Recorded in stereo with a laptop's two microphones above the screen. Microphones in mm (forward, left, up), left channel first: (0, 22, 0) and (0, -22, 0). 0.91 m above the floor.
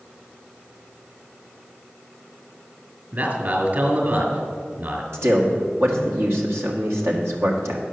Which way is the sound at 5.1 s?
65° right (ahead or behind).